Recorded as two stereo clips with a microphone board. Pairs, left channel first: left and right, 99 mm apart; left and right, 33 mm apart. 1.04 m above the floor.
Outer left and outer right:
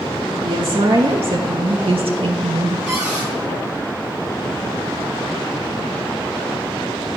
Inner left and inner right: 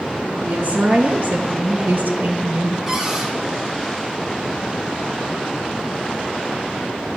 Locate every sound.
0.4 s a woman speaking: 55° right (ahead or behind), 1.6 m; by 2.8 s 60° right (ahead or behind), 1.4 m
2.9 s a cupboard door: 10° right (ahead or behind), 3 m